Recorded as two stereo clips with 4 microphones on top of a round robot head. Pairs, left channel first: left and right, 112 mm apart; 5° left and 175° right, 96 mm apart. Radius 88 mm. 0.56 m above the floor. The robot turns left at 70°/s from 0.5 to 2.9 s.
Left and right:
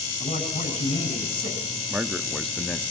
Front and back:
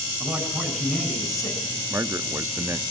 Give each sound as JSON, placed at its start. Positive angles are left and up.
{"t": 0.2, "sound": "a man speaking", "azimuth_deg": 115, "distance_m": 6.5}
{"t": 1.9, "sound": "a man speaking", "azimuth_deg": -150, "distance_m": 0.6}